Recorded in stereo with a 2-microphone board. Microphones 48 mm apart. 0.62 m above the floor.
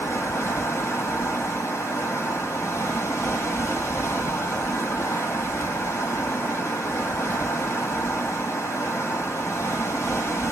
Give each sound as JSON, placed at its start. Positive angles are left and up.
{"t": 0.0, "sound": "running water", "side_deg": 85, "distance_m": 1.8}